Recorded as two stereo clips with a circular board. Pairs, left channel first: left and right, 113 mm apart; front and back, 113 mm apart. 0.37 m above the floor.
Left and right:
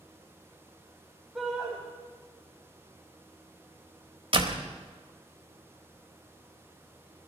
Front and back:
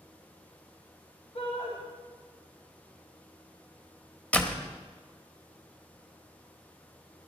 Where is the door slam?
75° right, 1.2 m.